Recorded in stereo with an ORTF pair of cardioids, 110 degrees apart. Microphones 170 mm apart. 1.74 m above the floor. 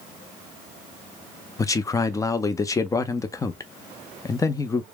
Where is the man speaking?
20° left, 0.6 m.